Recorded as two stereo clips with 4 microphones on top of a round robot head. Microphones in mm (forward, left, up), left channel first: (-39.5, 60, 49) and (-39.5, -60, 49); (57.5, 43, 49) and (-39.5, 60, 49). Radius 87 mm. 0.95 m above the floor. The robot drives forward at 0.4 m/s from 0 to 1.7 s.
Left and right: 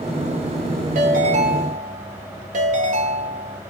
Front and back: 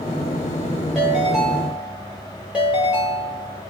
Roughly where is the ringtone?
Right.